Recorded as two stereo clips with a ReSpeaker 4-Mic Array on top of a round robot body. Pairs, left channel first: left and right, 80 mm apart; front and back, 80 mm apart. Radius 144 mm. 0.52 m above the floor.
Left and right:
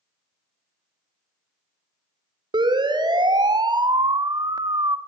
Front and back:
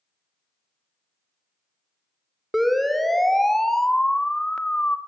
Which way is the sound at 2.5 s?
90° right.